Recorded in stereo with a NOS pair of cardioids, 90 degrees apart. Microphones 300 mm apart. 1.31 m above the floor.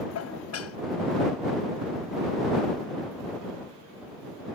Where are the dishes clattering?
55° left.